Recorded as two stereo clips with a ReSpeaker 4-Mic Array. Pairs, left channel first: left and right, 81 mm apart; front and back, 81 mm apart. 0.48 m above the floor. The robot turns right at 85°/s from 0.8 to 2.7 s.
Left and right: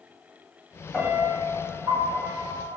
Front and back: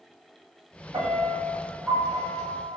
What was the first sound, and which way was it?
A piano, 175° right.